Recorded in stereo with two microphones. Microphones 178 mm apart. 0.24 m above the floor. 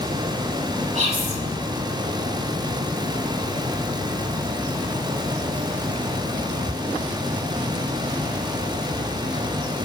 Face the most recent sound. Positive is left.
turn(degrees=-40)  # may be behind; listen again after turning